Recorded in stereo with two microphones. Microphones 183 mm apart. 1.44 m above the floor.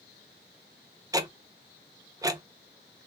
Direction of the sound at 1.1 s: 20° right (ahead or behind).